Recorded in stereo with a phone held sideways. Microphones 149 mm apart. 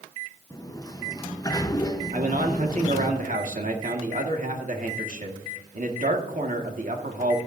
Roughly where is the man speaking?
Right.